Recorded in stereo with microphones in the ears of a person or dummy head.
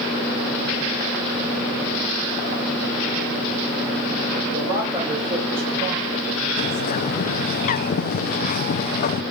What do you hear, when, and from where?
4.5 s a man speaking: 20° right (ahead or behind), 6.5 m; by 6.5 s 50° right (ahead or behind), 6.5 m
6.6 s a bird: 45° left (ahead or behind), 0.6 m